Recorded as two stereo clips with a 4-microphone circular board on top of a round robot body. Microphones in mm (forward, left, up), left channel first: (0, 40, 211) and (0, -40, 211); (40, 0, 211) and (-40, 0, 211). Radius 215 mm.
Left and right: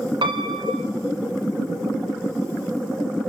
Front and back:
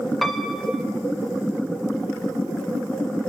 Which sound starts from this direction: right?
A piano, at 0.2 s.